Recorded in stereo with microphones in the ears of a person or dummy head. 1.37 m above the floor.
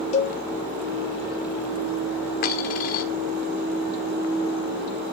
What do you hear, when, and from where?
0.1 s a cowbell: 40° left (ahead or behind), 2 m
2.4 s a dropped coin: 45° left (ahead or behind), 1.3 m